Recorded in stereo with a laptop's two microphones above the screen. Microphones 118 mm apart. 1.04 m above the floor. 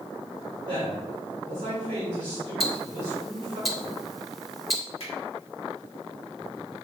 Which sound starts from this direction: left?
A finger snap, at 5.0 s.